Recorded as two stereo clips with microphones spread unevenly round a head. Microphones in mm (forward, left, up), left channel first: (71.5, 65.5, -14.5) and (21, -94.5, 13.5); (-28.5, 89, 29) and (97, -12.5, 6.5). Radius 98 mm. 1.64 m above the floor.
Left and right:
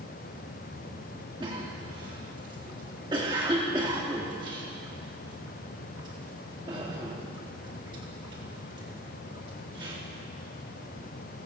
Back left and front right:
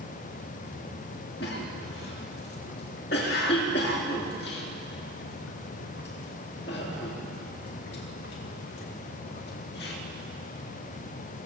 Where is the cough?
175° right, 4 m.